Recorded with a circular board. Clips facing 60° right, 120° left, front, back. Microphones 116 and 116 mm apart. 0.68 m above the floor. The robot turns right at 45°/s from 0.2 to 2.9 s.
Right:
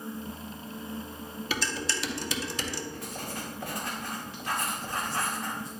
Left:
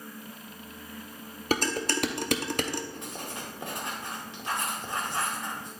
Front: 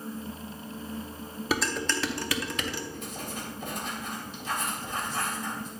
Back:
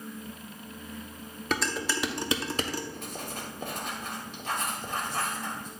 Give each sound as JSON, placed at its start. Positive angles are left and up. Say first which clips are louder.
{"t": 1.5, "sound": "dishes clattering", "louder": "left 6 dB, front 1 dB", "azimuth_deg": 85, "distance_m": 0.6}
{"t": 2.9, "sound": "writing", "louder": "right 1 dB, front 1 dB", "azimuth_deg": -175, "distance_m": 2.0}